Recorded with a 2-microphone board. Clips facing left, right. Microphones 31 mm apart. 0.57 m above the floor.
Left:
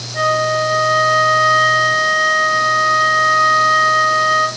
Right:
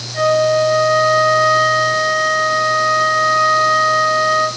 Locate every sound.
0.1 s a flute: 5° right (ahead or behind), 3 m